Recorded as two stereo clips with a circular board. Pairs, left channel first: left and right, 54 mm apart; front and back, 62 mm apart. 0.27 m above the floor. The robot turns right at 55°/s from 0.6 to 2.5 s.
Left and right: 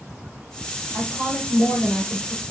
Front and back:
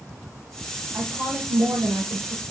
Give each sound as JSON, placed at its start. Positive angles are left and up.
{"t": 0.9, "sound": "a woman speaking", "azimuth_deg": 115, "distance_m": 4.0}